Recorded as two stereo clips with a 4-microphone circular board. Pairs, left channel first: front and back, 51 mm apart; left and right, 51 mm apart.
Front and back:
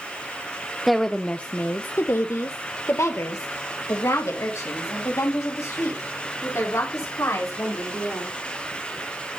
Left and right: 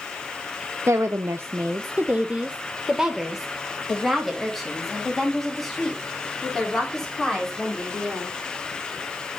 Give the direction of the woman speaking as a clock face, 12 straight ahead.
3 o'clock.